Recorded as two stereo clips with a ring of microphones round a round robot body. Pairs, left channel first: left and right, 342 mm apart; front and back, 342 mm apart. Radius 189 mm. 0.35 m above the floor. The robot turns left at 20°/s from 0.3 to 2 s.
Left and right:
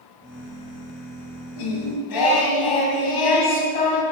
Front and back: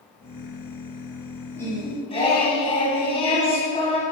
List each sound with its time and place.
1.6 s singing: 85° left, 2.5 m; by 4.0 s 75° left, 2.5 m